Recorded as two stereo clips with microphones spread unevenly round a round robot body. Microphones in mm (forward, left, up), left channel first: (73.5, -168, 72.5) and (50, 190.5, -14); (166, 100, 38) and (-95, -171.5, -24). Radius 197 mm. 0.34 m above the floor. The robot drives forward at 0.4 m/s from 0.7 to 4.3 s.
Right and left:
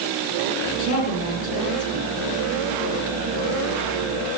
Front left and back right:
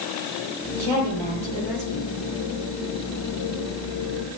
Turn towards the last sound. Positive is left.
turn(degrees=-160)